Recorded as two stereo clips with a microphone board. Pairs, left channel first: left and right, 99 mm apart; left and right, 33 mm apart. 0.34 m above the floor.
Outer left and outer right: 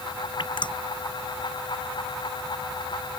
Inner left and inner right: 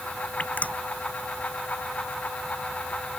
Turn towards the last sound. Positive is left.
turn(degrees=55)  # may be behind; listen again after turning